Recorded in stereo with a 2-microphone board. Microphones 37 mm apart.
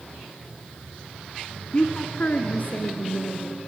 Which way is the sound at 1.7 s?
25° left (ahead or behind).